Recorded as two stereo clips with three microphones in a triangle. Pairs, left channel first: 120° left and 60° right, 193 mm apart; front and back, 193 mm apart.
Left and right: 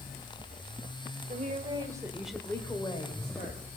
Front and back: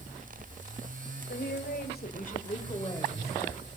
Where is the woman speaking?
20° right, 2.5 m; by 3.6 s 80° left, 3 m.